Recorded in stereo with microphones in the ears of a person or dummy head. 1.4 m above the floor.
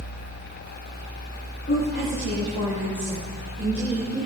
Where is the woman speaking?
55° left (ahead or behind), 4 m; by 4.3 s 40° left (ahead or behind), 4.5 m.